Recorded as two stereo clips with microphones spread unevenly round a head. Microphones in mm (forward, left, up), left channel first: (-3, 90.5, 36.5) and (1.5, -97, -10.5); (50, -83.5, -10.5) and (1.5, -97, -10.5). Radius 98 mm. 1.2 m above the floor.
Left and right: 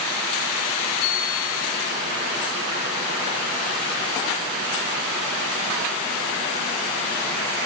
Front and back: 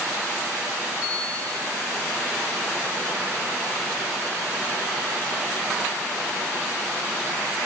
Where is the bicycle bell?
80° left, 4 m.